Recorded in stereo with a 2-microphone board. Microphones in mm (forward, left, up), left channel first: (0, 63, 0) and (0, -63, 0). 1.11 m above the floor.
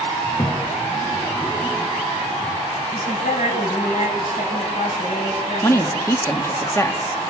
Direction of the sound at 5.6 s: 20° left (ahead or behind).